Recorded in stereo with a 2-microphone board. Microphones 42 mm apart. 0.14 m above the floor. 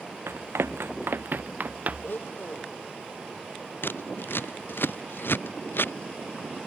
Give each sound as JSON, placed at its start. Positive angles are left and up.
{"t": 0.3, "sound": "running footsteps", "side_deg": -85}
{"t": 2.0, "sound": "a blender", "side_deg": 60}
{"t": 3.8, "sound": "scissors", "side_deg": 60}